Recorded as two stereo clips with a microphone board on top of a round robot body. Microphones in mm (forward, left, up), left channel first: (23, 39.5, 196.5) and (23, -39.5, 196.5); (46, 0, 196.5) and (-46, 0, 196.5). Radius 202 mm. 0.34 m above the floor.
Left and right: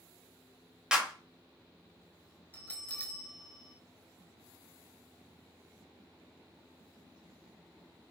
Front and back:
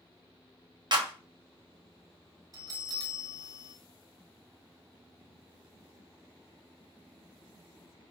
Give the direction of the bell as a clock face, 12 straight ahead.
7 o'clock.